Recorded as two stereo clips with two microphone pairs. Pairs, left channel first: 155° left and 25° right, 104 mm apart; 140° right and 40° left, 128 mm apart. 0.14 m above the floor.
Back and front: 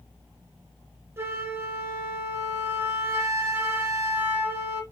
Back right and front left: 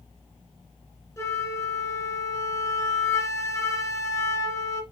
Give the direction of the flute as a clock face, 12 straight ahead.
3 o'clock.